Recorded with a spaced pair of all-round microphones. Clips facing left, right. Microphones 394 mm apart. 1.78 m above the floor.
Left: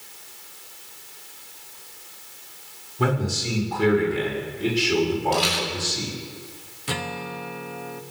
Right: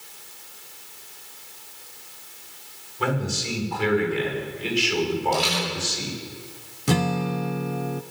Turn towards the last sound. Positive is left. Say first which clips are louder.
# right 9 dB
turn(degrees=-60)  # may be behind; listen again after turning